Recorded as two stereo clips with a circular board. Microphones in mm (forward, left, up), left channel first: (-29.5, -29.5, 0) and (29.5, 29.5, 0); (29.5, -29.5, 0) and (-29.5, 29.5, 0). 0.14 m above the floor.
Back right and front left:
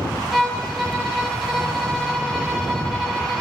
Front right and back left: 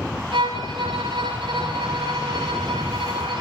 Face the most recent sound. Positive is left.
turn(degrees=135)